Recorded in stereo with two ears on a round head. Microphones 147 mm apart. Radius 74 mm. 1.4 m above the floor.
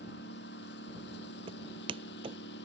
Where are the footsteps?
35° right (ahead or behind).